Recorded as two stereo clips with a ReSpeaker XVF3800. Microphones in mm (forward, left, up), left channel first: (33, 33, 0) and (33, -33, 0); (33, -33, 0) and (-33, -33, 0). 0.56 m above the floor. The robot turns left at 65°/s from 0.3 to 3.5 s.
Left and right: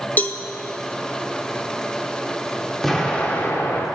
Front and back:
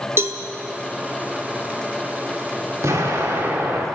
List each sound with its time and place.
0.2 s a cowbell: 145° left, 0.5 m; by 0.4 s 135° left, 0.5 m
2.8 s an explosion: 175° left, 1.5 m; by 3.9 s 130° left, 1.5 m